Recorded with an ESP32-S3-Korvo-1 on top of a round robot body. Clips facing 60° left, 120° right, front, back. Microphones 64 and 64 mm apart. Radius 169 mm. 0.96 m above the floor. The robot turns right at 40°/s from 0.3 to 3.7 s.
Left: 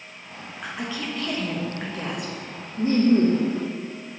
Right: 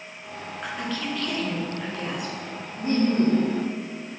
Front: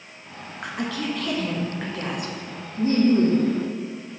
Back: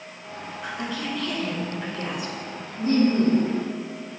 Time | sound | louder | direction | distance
0.6 | a woman speaking | even, front 3 dB | 30° right | 1.5 m
2.8 | laughter | left 4 dB, front 2 dB | 40° left | 1.2 m